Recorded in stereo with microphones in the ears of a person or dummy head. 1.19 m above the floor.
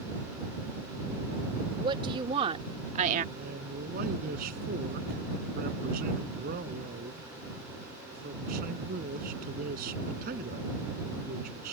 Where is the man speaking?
55° right (ahead or behind).